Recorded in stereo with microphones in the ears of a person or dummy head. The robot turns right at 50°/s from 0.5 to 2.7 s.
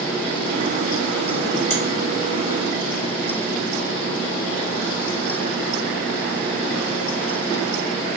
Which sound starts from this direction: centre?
A finger snap, at 1.7 s.